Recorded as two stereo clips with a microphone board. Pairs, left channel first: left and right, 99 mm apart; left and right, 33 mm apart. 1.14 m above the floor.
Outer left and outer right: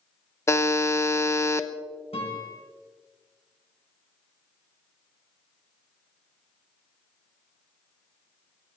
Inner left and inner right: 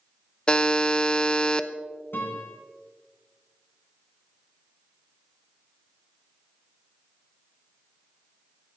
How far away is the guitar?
About 5.5 m.